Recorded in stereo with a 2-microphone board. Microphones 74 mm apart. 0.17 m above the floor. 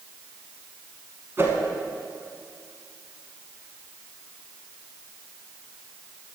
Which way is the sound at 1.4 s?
35° right (ahead or behind).